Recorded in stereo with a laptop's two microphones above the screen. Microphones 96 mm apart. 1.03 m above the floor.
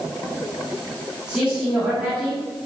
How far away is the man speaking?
About 2 m.